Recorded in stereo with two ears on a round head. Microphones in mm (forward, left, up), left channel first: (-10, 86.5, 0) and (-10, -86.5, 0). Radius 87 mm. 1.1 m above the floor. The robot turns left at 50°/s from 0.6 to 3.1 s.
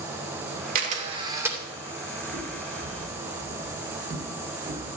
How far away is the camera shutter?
About 2.5 m.